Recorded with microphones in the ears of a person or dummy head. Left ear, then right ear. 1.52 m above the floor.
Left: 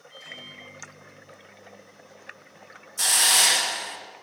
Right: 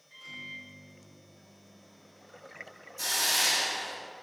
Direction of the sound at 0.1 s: 60° left (ahead or behind).